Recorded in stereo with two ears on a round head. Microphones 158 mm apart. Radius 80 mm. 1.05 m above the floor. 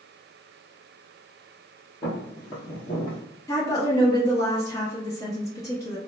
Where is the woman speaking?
20° left (ahead or behind), 0.7 m.